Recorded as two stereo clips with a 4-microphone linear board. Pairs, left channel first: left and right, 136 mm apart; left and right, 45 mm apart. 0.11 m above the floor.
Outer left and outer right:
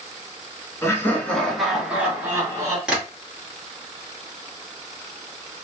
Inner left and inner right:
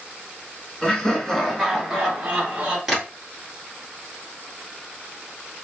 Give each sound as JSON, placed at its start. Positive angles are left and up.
{"t": 0.8, "sound": "laughter", "side_deg": 20, "distance_m": 1.1}
{"t": 2.9, "sound": "tapping", "side_deg": -5, "distance_m": 1.8}